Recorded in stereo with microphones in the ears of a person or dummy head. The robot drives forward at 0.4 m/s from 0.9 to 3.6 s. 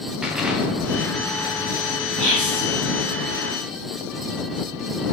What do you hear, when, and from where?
0.2 s an explosion: 10° right (ahead or behind), 0.7 m; by 3.2 s 5° right (ahead or behind), 1.5 m
2.2 s whispering: 70° right (ahead or behind), 1.2 m; by 2.7 s 65° right (ahead or behind), 1.2 m